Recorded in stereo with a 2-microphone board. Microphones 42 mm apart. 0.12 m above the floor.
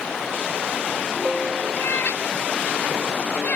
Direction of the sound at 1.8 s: 55° left (ahead or behind).